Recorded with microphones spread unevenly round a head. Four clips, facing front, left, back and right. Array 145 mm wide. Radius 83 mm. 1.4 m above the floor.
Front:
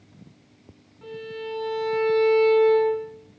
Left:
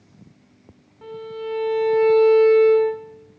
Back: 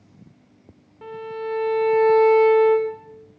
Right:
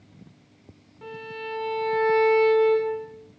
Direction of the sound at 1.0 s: 175° left.